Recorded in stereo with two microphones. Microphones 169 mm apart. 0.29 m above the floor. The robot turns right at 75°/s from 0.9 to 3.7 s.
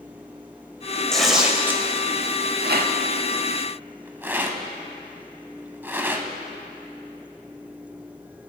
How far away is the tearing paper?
About 0.9 m.